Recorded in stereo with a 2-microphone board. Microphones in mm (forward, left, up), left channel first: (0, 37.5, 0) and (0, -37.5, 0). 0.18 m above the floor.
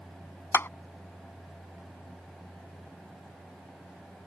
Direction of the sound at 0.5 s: 30° left (ahead or behind).